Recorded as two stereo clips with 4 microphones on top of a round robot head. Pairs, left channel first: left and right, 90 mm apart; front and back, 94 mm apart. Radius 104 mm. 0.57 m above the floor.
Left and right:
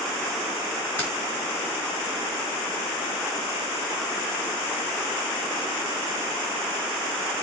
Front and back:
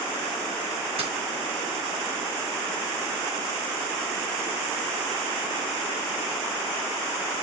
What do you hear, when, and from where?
1.0 s keys jangling: 160° left, 6 m